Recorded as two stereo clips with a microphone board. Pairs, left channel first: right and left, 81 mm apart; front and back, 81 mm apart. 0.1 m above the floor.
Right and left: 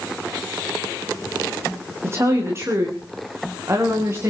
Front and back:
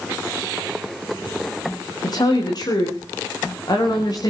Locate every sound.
2.0 s a woman speaking: 35° left, 6.5 m